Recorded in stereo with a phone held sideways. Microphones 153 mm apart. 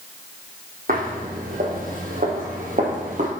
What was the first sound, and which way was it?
Footsteps, 65° right (ahead or behind).